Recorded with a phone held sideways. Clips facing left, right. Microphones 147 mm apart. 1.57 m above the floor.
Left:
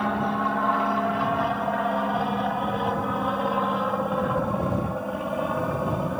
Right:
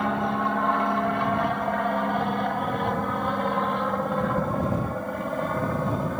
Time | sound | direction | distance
0.0 | an aircraft | centre (ahead or behind) | ?